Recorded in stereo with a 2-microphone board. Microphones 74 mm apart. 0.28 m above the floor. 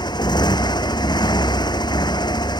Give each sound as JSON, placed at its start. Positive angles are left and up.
{"t": 0.0, "sound": "a motorcycle", "side_deg": 80}